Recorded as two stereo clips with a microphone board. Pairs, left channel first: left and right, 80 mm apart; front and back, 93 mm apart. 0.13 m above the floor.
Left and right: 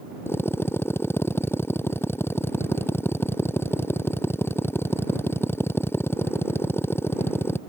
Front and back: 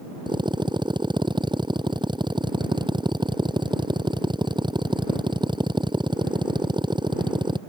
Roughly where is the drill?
Behind left.